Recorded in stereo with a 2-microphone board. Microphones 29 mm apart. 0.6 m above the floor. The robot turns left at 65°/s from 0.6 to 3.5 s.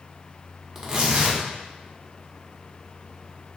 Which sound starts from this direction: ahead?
Tearing paper, at 0.8 s.